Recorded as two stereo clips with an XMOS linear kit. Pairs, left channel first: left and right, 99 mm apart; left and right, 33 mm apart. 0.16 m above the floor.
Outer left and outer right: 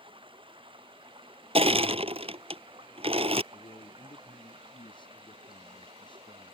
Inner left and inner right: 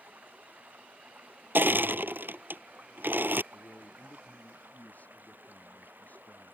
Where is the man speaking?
50° left (ahead or behind).